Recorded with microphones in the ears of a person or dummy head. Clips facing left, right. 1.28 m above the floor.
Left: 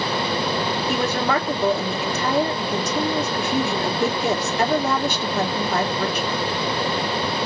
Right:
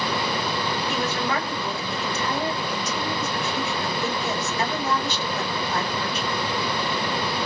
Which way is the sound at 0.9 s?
45° left (ahead or behind).